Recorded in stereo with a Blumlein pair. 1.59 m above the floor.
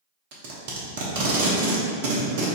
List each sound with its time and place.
0.3 s tape being pulled: 50° right, 1.0 m